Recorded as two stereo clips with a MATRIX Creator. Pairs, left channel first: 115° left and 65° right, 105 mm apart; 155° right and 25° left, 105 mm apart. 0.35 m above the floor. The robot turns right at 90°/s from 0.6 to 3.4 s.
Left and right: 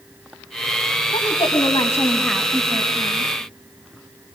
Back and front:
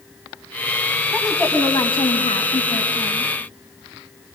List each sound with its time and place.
1.1 s a woman speaking: 100° left, 3 m; by 3.3 s 60° right, 3 m